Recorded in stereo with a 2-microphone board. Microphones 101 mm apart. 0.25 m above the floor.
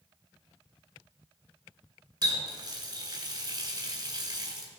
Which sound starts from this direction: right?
A running tap, at 2.2 s.